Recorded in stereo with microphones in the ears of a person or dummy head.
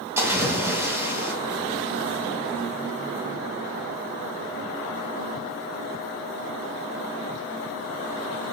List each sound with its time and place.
0.2 s a splash: 15° right (ahead or behind), 2.5 m